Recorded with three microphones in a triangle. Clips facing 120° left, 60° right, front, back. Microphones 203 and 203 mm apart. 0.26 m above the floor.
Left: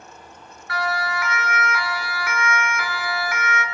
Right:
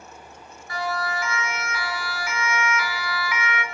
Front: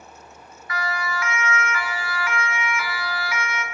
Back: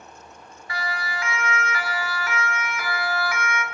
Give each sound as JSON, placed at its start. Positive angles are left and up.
{"t": 0.7, "sound": "a siren", "azimuth_deg": 125, "distance_m": 3.0}